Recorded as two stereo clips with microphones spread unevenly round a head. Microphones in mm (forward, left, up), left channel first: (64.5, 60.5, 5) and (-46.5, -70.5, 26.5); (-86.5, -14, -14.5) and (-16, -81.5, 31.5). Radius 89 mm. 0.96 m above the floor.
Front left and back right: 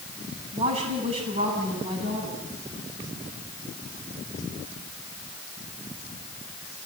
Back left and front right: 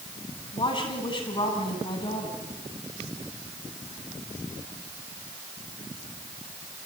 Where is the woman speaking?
175° left, 9.5 m.